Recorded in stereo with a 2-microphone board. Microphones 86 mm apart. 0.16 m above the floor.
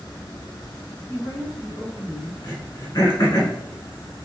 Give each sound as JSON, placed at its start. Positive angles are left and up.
{"t": 1.1, "sound": "a woman speaking", "side_deg": 20, "distance_m": 1.6}
{"t": 2.4, "sound": "throat clearing", "side_deg": 45, "distance_m": 1.5}